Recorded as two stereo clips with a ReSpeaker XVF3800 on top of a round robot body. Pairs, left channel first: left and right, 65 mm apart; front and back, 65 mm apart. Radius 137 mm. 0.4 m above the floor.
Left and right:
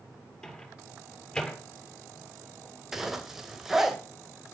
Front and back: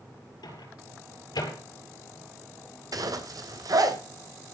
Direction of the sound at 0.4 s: 15° left.